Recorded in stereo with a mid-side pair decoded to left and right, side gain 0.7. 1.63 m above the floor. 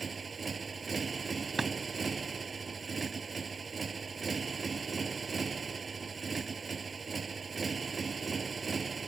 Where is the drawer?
15° right.